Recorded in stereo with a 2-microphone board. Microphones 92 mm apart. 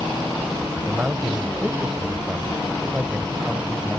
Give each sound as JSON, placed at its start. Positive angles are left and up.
{"t": 0.9, "sound": "a man speaking", "side_deg": -15}